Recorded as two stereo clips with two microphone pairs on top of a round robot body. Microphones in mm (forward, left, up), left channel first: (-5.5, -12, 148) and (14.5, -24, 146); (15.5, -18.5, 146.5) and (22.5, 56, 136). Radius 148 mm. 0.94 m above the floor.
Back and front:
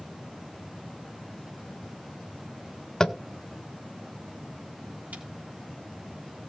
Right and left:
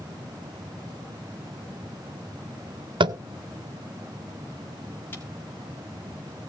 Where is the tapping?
85° left, 0.7 m.